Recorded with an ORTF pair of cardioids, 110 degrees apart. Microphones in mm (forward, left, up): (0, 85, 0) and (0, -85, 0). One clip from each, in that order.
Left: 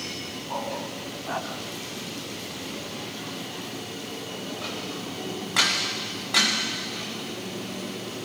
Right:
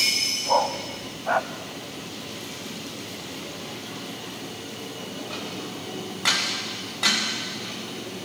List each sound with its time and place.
0.5 s a dog barking: 70° right, 3 m; by 1.5 s 45° right, 2.5 m